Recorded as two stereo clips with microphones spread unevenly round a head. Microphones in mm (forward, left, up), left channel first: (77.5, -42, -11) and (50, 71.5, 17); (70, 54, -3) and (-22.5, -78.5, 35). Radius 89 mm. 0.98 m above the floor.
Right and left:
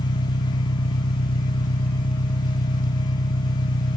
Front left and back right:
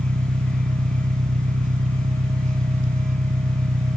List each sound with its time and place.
0.0 s an engine running: 85° right